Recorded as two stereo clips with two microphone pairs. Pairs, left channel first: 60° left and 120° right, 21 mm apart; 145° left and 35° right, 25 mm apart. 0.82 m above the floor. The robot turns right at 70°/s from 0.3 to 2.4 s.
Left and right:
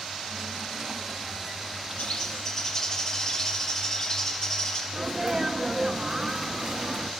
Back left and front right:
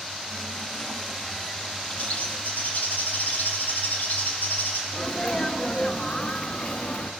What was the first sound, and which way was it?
A bird, 85° left.